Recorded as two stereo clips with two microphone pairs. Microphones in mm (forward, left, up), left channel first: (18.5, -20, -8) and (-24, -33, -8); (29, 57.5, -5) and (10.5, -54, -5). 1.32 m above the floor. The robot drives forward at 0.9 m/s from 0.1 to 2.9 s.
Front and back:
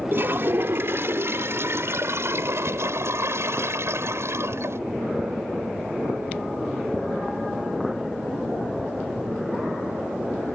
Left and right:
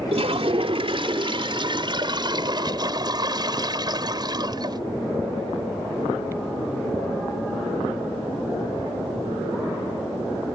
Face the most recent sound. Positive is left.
turn(degrees=-150)